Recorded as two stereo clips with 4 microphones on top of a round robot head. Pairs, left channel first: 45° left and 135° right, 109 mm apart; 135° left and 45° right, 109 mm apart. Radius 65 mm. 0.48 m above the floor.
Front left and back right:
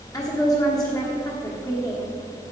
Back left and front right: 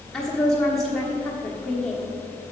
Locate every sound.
0.1 s a woman speaking: 50° left, 1.3 m